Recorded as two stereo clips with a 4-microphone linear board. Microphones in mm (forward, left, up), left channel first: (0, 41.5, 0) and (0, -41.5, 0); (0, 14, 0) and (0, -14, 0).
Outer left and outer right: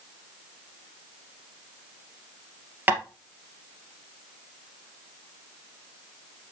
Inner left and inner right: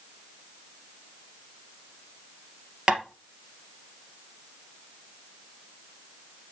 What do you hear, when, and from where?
2.9 s tapping: 25° right (ahead or behind), 2.0 m